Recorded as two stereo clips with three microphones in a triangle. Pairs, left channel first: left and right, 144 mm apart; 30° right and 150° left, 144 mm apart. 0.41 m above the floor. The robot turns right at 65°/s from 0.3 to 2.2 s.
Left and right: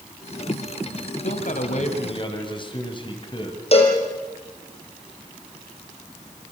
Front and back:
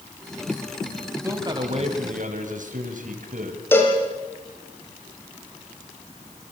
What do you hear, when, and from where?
1.2 s a man speaking: 80° left, 3.5 m; by 3.6 s 140° left, 3.5 m
3.7 s a cowbell: 45° left, 5 m